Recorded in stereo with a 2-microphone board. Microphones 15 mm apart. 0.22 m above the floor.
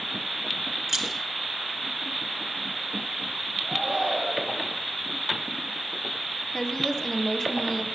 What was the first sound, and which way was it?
Keys jangling, 15° right (ahead or behind).